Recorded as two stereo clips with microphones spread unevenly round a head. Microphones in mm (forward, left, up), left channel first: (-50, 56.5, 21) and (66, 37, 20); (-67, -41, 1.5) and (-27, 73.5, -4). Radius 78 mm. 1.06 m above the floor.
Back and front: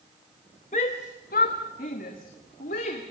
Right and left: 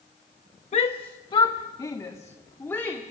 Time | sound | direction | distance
0.7 | a shout | 145° right | 1.1 m